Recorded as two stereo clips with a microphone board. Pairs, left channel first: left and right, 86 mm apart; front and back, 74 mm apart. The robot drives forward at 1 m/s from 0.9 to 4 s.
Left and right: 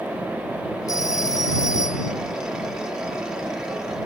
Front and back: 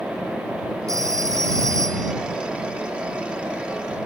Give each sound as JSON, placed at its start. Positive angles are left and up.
{"t": 0.9, "sound": "a phone ringing", "azimuth_deg": 140}